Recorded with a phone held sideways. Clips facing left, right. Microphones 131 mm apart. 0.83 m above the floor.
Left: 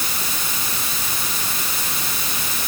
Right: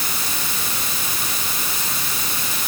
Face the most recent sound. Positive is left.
No sound to turn to.